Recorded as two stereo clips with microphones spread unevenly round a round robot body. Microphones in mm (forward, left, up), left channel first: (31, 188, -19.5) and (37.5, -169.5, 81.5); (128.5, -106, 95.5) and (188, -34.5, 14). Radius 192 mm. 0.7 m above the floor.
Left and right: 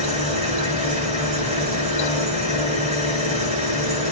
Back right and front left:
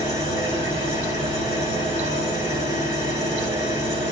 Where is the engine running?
165° right, 6.5 m.